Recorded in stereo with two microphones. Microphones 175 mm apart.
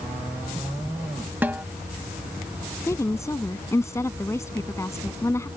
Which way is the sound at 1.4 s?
10° right (ahead or behind).